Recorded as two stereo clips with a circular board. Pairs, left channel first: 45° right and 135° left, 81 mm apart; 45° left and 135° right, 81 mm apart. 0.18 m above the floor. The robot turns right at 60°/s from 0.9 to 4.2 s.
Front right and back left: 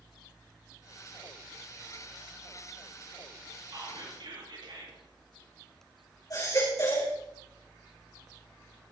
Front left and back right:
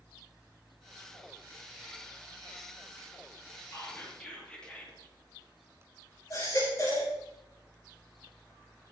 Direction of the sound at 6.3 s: 5° right.